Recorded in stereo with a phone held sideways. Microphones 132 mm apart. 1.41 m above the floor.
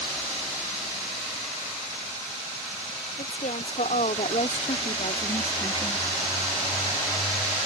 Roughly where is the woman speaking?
Left.